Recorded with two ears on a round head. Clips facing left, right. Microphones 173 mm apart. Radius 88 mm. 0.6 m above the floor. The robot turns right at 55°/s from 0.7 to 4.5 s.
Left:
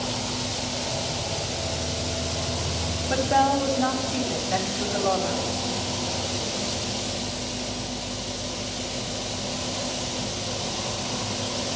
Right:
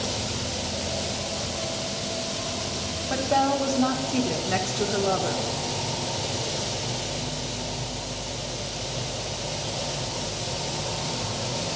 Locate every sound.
0.0 s an insect: 20° right, 1.6 m; by 11.8 s 170° right, 1.6 m
3.1 s a woman speaking: 150° left, 1.4 m; by 5.5 s 135° right, 1.4 m